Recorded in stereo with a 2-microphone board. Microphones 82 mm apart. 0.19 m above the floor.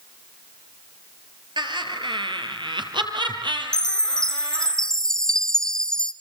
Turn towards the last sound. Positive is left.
turn(degrees=10)  # may be behind; listen again after turning